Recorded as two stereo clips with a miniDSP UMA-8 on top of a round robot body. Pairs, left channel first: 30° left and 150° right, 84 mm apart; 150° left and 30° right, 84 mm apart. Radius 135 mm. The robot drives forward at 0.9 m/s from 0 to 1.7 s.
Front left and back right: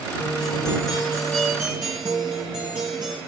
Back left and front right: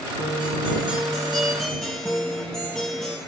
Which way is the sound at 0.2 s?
5° right.